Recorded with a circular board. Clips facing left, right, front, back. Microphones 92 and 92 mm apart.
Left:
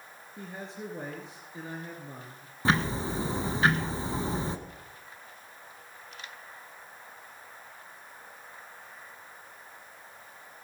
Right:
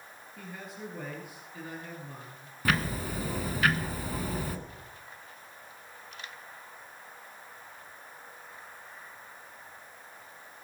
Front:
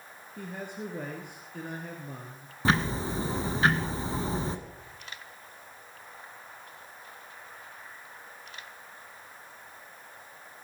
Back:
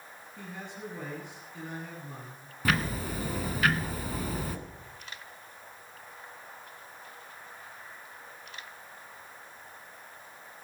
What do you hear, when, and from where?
0.4 s a man speaking: 30° left, 2.5 m
2.6 s ticking: 45° left, 1.3 m